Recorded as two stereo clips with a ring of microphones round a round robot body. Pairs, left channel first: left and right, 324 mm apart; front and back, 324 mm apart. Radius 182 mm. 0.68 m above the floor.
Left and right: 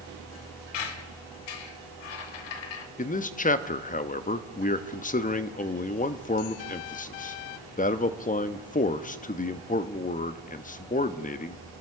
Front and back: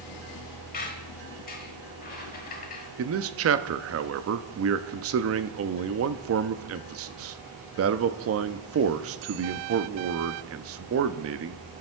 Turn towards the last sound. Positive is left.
turn(degrees=150)